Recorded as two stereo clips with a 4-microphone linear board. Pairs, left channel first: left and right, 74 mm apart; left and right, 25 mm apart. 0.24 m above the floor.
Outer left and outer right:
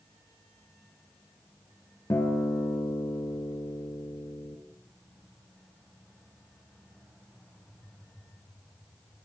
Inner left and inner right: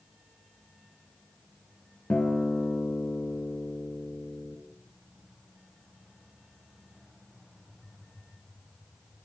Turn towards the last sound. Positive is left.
turn(degrees=40)  # may be behind; listen again after turning